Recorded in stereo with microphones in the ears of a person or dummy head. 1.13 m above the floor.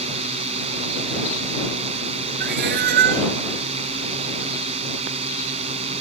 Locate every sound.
0.0 s a drone: 35° right (ahead or behind)
2.4 s a cat meowing: 60° right (ahead or behind)